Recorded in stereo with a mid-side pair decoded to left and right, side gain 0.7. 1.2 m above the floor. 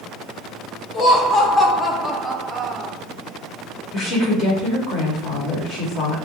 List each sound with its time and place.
0.9 s laughter: 35° left, 1.3 m; by 2.9 s 25° right, 0.9 m
3.9 s a woman speaking: 40° left, 1.9 m